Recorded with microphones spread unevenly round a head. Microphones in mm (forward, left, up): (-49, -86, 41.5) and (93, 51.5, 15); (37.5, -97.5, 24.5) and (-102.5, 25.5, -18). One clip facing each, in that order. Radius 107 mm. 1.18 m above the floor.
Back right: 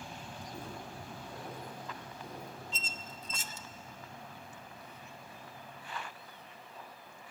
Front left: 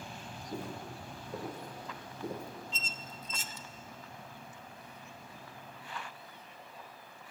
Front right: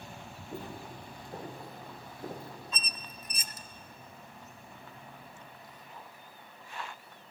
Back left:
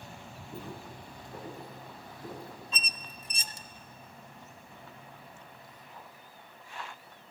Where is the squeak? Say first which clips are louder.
Even, even; 155° right, 0.6 m.